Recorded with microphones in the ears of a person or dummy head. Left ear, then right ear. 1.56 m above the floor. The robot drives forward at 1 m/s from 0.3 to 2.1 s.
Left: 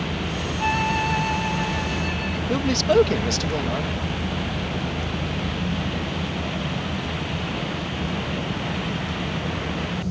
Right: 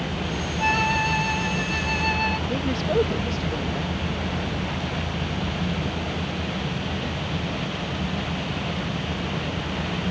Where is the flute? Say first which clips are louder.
Right 1 dB; 20° right (ahead or behind); by 2.4 s 25° right (ahead or behind).